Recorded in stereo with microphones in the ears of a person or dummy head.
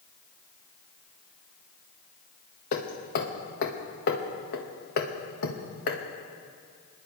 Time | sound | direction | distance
2.7 | hammering | 55° left (ahead or behind) | 1.4 m